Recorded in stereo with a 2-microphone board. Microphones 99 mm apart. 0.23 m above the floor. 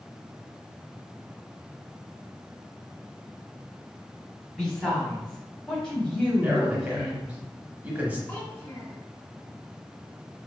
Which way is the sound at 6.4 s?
15° right (ahead or behind).